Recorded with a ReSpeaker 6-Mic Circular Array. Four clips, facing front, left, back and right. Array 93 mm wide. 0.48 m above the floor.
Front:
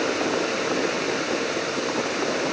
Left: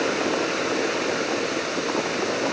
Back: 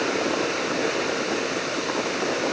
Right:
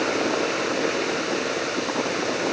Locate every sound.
Only background noise.